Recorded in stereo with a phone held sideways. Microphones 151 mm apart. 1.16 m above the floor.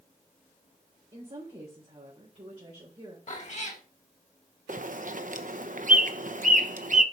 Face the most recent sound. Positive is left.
turn(degrees=-60)  # may be behind; listen again after turning